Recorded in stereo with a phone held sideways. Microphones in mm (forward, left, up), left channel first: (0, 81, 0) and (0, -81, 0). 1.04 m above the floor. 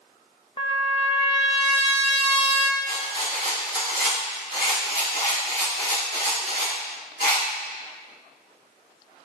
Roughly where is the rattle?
Right.